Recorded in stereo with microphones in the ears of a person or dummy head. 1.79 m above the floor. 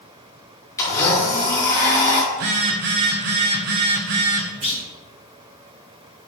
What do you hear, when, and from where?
0.8 s a blender: 20° left (ahead or behind), 2.5 m
2.3 s a phone buzzing: 45° right (ahead or behind), 1.0 m
4.6 s a clunk: 20° right (ahead or behind), 2.5 m